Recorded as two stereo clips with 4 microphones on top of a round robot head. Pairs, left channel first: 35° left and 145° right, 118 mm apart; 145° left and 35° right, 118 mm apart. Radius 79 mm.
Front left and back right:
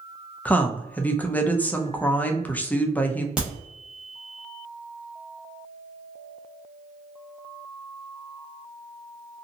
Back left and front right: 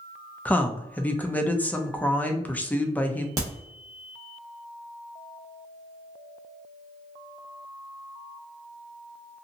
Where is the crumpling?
I don't hear crumpling.